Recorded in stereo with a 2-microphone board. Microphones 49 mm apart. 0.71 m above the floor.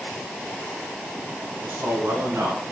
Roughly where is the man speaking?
Right.